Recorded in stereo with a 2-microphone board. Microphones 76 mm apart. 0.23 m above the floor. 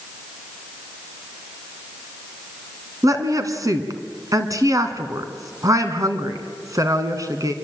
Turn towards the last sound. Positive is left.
turn(degrees=-50)  # may be behind; listen again after turning